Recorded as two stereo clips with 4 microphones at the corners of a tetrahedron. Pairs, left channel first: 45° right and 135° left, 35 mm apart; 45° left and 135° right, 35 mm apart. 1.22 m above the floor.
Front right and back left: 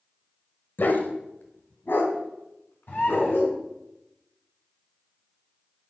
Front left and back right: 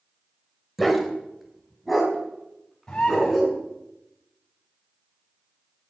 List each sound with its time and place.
0.8 s a dog barking: 45° right, 1.5 m
2.9 s a bird: 25° right, 8 m